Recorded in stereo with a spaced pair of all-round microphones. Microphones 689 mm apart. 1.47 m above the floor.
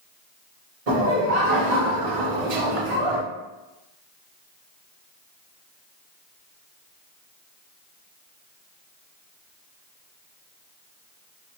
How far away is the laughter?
About 1.1 m.